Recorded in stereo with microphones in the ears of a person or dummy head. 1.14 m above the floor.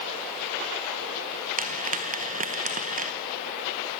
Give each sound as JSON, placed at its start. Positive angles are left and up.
{"t": 1.6, "sound": "frying", "side_deg": -50, "distance_m": 0.9}